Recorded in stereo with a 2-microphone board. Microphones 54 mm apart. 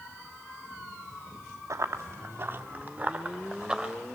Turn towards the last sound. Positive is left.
turn(degrees=-10)  # may be behind; listen again after turning